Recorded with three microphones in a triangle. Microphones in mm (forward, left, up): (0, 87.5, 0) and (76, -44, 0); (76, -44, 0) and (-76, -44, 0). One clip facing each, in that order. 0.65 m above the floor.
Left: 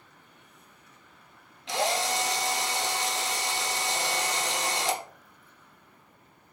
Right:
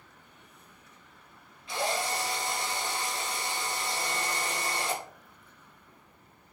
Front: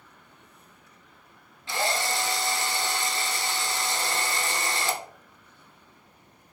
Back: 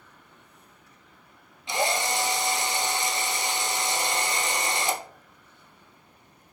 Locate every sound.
1.7 s a drill: 110° left, 0.6 m